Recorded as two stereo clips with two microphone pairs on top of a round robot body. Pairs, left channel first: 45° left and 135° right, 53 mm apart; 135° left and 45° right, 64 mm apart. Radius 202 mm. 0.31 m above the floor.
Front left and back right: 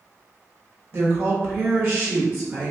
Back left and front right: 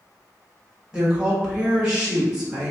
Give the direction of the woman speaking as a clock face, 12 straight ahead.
4 o'clock.